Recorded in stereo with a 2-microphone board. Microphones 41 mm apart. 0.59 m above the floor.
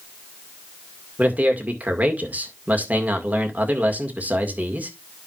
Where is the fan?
I don't hear a fan.